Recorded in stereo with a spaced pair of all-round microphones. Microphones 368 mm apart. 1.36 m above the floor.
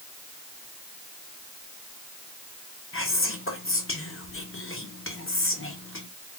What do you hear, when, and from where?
2.9 s whispering: 35° left (ahead or behind), 0.7 m